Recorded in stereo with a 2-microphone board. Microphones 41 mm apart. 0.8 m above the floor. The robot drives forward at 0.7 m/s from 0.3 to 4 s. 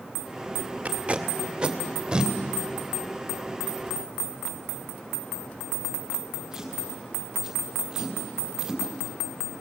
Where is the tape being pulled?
35° right (ahead or behind), 1.1 m; by 9.6 s 10° right (ahead or behind), 3 m.